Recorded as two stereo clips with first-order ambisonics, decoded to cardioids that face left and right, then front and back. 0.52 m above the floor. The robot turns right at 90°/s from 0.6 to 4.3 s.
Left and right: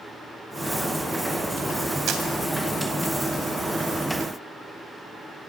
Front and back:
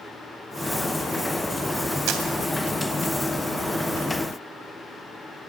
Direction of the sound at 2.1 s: 145° right.